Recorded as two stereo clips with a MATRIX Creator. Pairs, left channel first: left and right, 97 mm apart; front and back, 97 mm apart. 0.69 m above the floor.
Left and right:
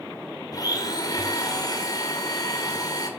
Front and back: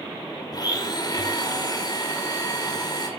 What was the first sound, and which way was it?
A blender, 45° left.